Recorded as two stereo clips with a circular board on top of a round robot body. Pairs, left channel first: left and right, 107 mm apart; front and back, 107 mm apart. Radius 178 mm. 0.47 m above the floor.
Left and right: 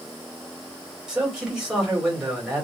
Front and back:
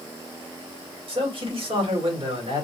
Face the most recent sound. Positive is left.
turn(degrees=-175)